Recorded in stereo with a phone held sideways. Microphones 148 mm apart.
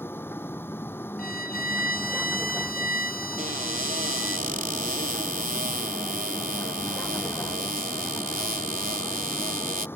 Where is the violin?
80° left.